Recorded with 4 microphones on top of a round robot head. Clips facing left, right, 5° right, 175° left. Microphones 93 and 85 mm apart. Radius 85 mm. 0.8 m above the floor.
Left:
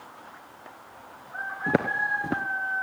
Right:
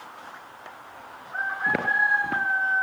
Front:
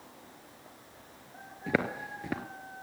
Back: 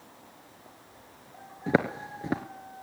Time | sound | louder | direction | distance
1.7 | footsteps | right 1 dB, back 4 dB | 125° left | 0.8 m